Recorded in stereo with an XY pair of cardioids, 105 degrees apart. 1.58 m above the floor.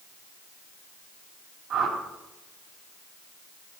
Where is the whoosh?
65° right, 3.5 m.